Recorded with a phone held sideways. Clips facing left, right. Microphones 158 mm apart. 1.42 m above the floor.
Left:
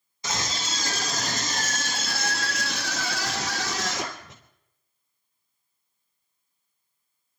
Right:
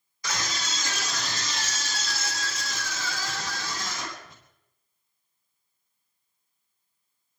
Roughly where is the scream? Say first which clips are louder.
Left 2 dB; left.